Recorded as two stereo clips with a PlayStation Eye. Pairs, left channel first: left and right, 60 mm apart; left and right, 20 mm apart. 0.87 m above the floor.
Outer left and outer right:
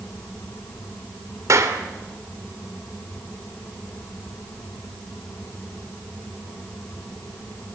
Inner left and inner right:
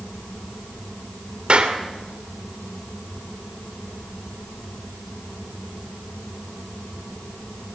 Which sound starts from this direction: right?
A clap, at 1.5 s.